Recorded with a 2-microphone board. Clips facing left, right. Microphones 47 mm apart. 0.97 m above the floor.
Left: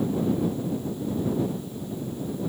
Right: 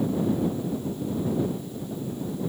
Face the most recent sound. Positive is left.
No sound to turn to.